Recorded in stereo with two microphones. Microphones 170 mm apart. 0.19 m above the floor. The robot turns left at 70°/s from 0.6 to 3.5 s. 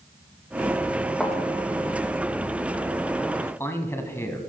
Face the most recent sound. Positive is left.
turn(degrees=15)  # may be behind; listen again after turning